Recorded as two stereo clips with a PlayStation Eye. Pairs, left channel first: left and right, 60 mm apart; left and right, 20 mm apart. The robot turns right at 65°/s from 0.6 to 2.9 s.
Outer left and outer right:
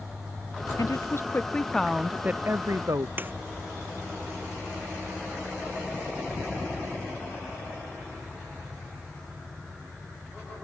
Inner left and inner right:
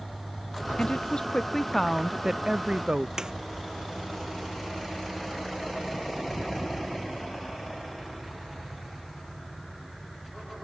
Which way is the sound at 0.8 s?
105° left.